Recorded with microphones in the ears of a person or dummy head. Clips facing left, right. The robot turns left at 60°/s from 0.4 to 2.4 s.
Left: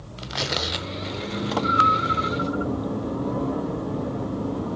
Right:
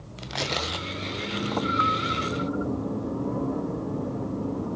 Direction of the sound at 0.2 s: 5° right (ahead or behind).